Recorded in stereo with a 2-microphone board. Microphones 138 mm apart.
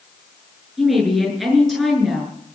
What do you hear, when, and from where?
0.8 s a woman speaking: centre (ahead or behind), 7.5 m